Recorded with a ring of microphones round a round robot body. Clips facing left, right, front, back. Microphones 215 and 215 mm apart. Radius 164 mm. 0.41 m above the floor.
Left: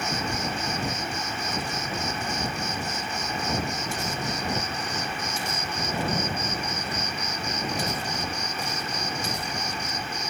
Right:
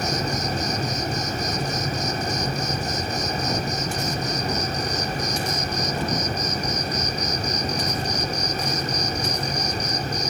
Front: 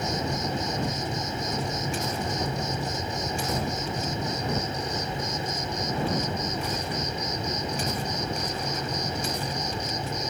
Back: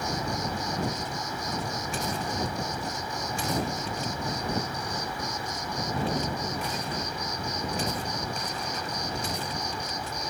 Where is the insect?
60° right.